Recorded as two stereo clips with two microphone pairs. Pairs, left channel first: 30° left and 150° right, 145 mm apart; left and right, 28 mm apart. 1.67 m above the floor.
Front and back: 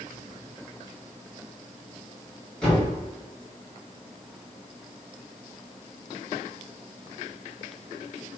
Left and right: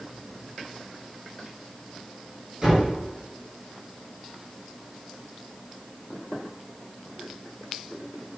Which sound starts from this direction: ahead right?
A thud, at 2.6 s.